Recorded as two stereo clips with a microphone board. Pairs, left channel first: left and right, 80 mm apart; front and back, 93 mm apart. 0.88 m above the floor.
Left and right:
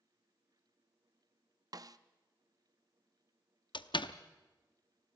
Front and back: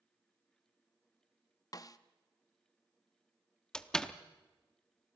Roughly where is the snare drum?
Ahead right.